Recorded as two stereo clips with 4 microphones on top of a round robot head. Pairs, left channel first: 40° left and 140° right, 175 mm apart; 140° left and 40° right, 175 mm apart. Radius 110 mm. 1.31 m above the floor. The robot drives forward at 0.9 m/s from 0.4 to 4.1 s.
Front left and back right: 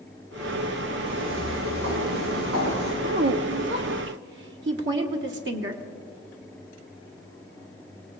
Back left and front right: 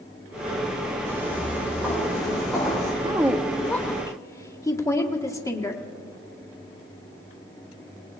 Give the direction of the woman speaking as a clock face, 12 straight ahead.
3 o'clock.